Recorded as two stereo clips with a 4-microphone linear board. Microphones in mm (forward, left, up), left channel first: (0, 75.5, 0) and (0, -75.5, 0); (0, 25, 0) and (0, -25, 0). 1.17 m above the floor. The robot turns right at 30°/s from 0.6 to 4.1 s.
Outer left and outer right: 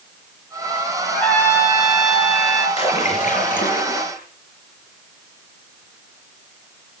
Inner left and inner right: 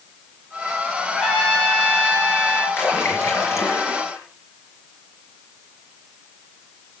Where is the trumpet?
Straight ahead, 3 m; by 2.7 s 50° left, 3 m.